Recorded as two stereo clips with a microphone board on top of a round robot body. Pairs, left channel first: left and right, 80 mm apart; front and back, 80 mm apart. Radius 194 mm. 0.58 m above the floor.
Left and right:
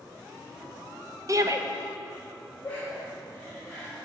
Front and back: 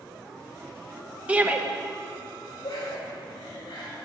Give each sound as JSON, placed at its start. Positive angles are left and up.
{"t": 1.3, "sound": "a shout", "azimuth_deg": -115, "distance_m": 1.4}
{"t": 2.6, "sound": "laughter", "azimuth_deg": 15, "distance_m": 5.0}